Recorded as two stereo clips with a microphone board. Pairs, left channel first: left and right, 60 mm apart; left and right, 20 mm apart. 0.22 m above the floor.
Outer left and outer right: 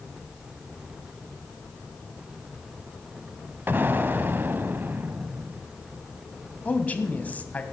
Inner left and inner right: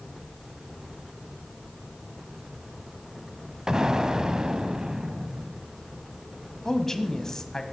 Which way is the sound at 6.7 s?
25° left (ahead or behind).